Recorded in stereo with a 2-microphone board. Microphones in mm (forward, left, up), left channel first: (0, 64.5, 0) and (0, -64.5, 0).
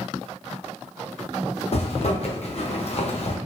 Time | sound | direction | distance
1.7 | a zipper | 50° left (ahead or behind) | 0.7 m